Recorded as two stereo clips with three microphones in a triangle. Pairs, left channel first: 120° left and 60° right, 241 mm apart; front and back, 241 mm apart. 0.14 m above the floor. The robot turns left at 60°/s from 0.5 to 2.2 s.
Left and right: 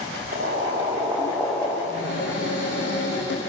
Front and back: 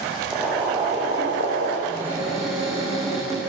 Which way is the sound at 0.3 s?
90° right.